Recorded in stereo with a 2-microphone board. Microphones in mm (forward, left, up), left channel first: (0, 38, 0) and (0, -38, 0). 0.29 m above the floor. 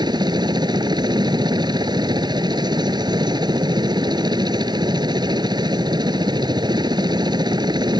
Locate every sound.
0.0 s a helicopter: 70° right (ahead or behind)